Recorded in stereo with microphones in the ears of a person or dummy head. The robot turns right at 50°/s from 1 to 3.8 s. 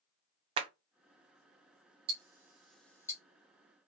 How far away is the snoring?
I don't hear snoring.